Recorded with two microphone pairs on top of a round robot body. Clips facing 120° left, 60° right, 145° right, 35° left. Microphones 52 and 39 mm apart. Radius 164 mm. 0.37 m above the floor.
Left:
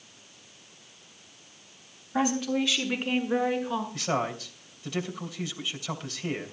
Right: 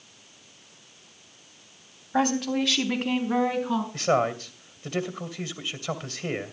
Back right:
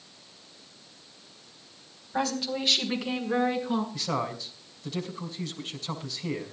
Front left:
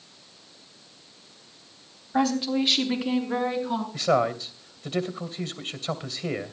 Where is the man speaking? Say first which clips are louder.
Right 9 dB, front left 8 dB; 15° right, 3 m.